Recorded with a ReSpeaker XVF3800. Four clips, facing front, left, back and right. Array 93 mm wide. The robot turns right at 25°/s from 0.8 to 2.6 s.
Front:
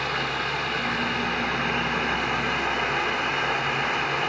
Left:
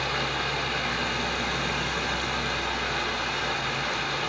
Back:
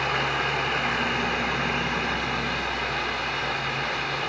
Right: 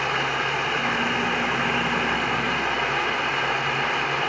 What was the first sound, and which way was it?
Running water, 115° right.